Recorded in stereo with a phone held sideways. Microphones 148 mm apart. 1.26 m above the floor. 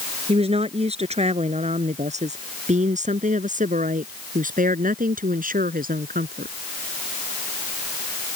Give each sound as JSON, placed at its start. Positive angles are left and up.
{"t": 0.3, "sound": "a woman speaking", "side_deg": -45}